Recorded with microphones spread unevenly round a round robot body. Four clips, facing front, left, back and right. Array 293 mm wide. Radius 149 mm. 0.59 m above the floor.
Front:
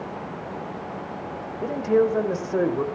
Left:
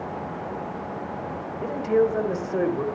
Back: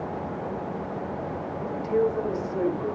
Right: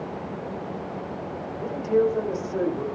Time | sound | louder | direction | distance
1.6 | a man speaking | left 1 dB, front 4 dB | 25° left | 2.5 m